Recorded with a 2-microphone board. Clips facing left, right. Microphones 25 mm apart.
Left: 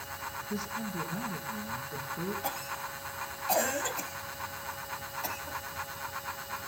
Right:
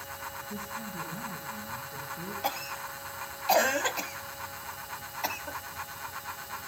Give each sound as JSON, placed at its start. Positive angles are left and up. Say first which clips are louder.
{"t": 0.5, "sound": "a man speaking", "louder": "left 2 dB", "side_deg": 60, "distance_m": 3.0}
{"t": 2.4, "sound": "a cough", "louder": "right 2 dB", "side_deg": -30, "distance_m": 1.1}